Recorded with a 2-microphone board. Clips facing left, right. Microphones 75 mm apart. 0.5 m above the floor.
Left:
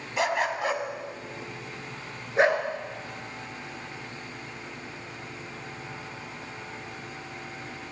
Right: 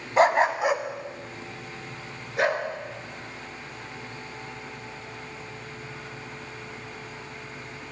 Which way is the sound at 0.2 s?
45° right (ahead or behind).